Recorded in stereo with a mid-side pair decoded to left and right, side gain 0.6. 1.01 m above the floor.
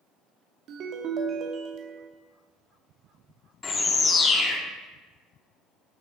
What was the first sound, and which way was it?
A ringtone, 60° right.